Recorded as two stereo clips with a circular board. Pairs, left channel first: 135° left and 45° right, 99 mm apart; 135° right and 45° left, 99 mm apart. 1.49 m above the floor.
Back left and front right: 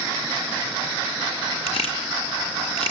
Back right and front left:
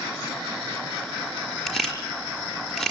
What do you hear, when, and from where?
1.7 s a camera shutter: 140° left, 5 m